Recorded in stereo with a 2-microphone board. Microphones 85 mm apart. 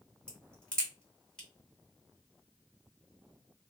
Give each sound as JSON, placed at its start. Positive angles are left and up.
{"t": 0.3, "sound": "a crack", "side_deg": 15, "distance_m": 1.9}